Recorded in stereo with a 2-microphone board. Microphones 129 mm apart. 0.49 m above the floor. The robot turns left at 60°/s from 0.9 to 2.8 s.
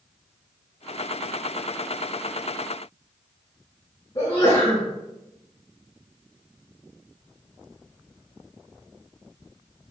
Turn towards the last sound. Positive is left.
turn(degrees=45)  # may be behind; listen again after turning